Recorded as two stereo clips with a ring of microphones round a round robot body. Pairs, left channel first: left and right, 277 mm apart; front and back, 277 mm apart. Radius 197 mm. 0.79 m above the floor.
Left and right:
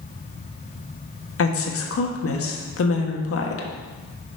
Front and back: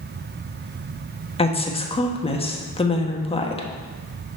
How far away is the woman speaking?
About 1.3 m.